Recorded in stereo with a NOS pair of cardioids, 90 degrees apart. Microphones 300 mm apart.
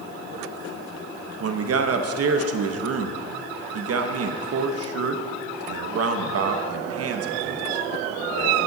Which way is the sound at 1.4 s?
50° right.